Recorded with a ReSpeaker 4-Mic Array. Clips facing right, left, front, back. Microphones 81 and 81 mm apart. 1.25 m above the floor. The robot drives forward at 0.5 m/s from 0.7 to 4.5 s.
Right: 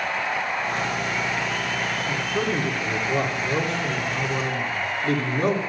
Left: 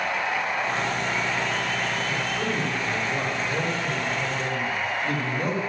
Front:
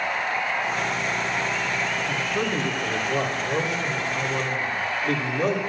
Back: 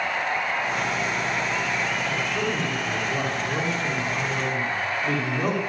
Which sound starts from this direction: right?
A man speaking, at 2.1 s.